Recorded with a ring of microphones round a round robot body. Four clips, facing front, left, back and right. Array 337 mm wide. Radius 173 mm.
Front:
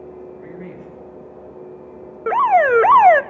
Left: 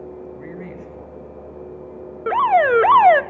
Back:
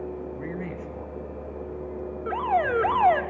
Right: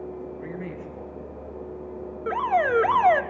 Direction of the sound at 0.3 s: 160° left.